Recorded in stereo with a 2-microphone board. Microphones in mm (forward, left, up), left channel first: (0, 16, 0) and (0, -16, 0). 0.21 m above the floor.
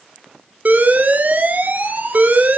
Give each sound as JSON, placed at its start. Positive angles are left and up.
{"t": 0.7, "sound": "an alarm", "side_deg": -55, "distance_m": 1.9}